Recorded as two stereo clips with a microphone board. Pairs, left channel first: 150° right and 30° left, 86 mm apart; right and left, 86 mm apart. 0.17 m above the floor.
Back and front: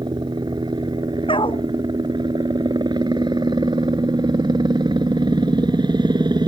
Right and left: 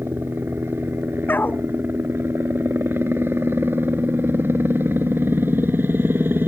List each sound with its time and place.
0.0 s a helicopter: 30° left
1.3 s a dog barking: 160° right